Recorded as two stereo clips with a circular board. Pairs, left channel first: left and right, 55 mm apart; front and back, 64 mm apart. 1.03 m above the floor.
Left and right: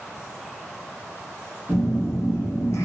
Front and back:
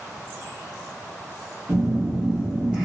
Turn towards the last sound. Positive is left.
turn(degrees=105)